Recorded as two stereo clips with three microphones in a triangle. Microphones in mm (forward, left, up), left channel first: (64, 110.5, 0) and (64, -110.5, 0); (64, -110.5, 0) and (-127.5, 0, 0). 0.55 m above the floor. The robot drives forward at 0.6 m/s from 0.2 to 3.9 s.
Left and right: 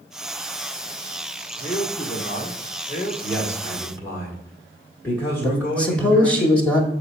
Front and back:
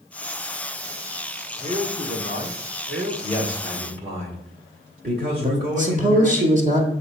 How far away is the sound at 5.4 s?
About 1.3 m.